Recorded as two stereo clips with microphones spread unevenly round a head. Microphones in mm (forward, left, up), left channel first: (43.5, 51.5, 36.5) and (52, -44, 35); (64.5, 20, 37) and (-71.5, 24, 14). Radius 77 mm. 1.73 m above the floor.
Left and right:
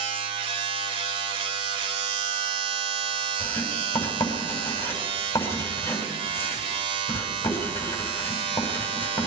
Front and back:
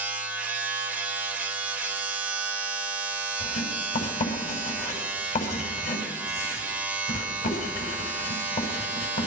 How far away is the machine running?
About 1.9 m.